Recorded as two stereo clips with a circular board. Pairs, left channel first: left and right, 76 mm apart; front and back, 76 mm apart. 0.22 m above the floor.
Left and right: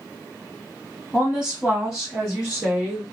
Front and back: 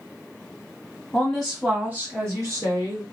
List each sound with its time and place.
1.1 s a woman speaking: 30° right, 1.2 m; by 3.0 s 175° right, 2 m